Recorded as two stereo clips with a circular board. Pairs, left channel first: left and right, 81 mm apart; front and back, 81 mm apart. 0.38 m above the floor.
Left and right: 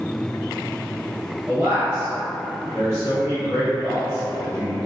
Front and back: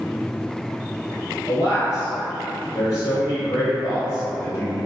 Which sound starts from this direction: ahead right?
A man speaking, at 1.5 s.